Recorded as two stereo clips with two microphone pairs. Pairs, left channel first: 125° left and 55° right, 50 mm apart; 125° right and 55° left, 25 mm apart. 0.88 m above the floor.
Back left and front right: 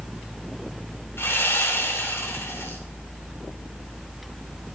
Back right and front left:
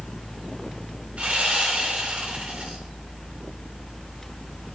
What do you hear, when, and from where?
1.2 s sawing: 90° left, 4 m